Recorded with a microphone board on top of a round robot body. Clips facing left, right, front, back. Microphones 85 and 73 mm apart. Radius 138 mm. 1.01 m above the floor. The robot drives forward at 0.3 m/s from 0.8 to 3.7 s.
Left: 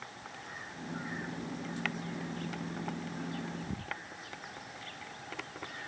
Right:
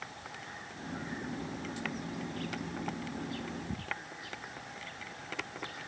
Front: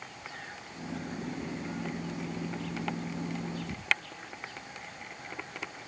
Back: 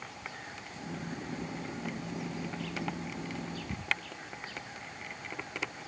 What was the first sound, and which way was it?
Only background noise.